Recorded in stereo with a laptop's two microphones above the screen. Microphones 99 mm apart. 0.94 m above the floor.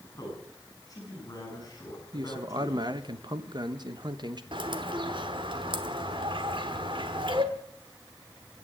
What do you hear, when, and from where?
0.2 s a man speaking: 35° left (ahead or behind), 8.5 m
2.1 s a man speaking: 45° right (ahead or behind), 0.9 m
4.5 s a bird: 55° right (ahead or behind), 1.1 m